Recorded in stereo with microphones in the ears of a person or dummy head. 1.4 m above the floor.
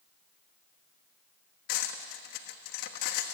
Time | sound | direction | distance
1.7 | cutlery clinking | 60° left (ahead or behind) | 1.3 m